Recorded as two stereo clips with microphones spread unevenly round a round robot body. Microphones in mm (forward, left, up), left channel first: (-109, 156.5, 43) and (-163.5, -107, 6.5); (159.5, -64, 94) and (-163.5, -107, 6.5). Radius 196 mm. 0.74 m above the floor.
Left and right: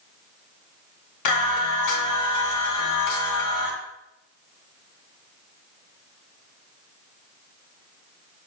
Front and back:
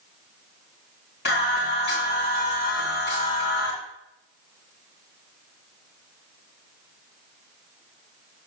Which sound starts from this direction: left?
Singing, at 1.2 s.